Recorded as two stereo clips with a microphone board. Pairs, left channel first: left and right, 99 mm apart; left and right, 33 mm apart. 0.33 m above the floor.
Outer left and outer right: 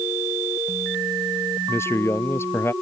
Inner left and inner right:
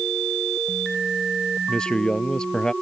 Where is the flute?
No flute in this recording.